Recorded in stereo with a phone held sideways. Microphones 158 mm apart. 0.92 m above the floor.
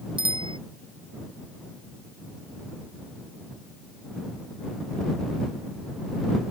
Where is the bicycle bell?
30° right (ahead or behind).